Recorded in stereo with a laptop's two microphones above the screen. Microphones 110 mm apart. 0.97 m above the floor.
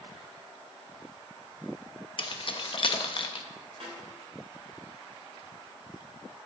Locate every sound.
2.2 s keys jangling: 50° left (ahead or behind), 0.7 m
3.8 s a snare drum: 70° right (ahead or behind), 2.5 m